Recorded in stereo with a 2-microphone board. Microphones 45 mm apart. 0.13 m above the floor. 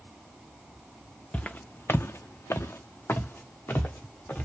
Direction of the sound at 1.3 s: 30° left (ahead or behind).